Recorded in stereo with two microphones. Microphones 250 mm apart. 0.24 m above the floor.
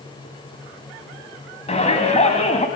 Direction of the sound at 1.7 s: 25° left (ahead or behind).